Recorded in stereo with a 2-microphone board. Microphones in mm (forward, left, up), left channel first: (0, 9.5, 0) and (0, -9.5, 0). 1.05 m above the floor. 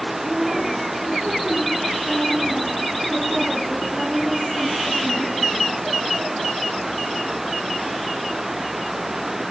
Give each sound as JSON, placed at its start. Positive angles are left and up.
{"t": 0.2, "sound": "a woman speaking", "side_deg": -70, "distance_m": 8.5}